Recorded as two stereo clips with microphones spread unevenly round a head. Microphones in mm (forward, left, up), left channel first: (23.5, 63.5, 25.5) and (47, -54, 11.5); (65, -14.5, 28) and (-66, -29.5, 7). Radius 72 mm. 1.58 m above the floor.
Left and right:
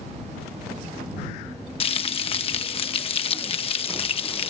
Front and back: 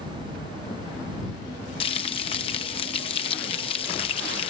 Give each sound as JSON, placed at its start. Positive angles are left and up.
{"t": 1.8, "sound": "frying", "azimuth_deg": 60}